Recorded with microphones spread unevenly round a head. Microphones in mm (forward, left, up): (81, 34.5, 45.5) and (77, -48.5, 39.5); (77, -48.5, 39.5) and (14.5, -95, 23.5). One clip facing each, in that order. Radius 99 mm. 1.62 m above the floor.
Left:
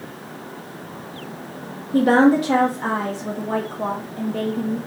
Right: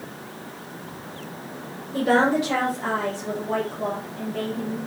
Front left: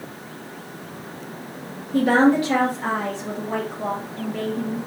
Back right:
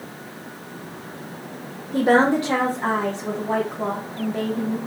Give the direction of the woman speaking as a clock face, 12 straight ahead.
7 o'clock.